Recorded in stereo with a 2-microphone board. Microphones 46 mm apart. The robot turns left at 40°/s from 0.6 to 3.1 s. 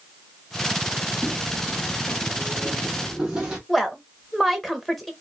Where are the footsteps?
10° left (ahead or behind), 0.9 m; by 3.6 s 15° right (ahead or behind), 2.0 m.